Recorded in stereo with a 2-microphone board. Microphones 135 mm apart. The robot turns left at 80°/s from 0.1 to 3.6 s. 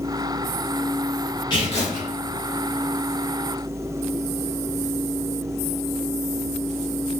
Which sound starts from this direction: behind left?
Tearing paper, at 1.5 s.